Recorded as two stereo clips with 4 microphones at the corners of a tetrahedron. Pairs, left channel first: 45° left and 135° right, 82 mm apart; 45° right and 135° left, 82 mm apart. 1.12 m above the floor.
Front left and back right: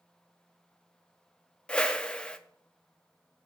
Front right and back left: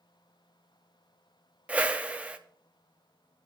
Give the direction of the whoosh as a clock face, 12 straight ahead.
9 o'clock.